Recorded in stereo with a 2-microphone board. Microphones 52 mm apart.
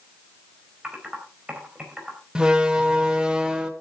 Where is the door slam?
15° right (ahead or behind), 1.5 m.